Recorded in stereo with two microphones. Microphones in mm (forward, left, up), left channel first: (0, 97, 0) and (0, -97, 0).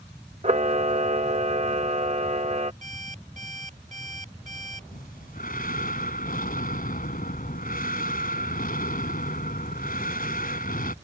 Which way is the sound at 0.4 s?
35° right (ahead or behind).